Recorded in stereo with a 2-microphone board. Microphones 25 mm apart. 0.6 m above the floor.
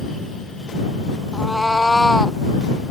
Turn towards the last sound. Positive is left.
turn(degrees=15)  # may be behind; listen again after turning